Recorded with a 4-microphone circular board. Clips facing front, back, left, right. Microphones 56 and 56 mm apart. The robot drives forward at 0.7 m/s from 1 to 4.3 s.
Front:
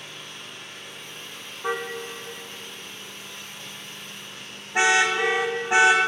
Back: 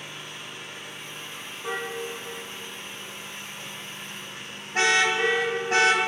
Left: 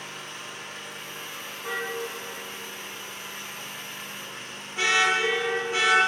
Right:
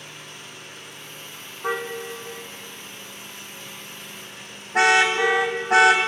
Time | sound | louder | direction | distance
0.0 | an engine running | back 1 dB, left 3 dB | 100° left | 7 m
1.6 | a car horn | front 2 dB, right 4 dB | 45° right | 3.5 m